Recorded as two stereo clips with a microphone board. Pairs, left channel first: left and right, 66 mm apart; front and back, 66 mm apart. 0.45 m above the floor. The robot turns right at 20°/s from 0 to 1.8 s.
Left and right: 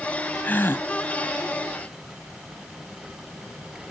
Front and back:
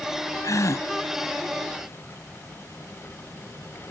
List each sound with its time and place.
0.4 s a gasp: 30° left; by 0.9 s 35° left